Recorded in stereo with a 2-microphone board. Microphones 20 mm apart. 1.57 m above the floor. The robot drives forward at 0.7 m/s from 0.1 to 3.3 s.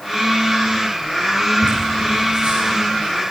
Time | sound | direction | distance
1.6 | laughter | 60° right (ahead or behind) | 9.5 m